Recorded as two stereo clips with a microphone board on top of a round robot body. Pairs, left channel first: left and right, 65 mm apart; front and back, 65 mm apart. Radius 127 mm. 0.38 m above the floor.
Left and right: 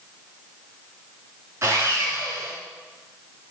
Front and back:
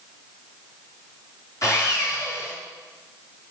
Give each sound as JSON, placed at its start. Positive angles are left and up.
{"t": 1.6, "sound": "sawing", "azimuth_deg": -40, "distance_m": 4.5}